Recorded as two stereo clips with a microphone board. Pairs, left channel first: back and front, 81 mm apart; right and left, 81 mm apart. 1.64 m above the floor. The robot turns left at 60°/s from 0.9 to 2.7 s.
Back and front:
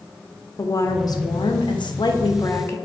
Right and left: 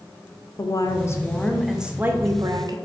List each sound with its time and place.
0.6 s a woman speaking: 135° right, 0.6 m; by 2.8 s 120° left, 0.6 m